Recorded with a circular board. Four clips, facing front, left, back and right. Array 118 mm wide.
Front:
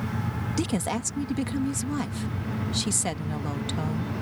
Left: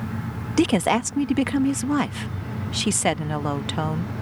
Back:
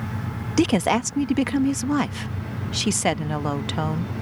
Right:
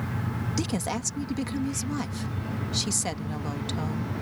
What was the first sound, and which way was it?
A woman speaking, 130° left.